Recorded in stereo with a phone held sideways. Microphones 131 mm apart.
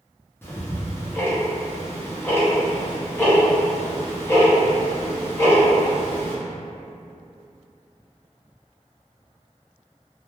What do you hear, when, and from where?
0.4 s ticking: 20° left (ahead or behind), 0.7 m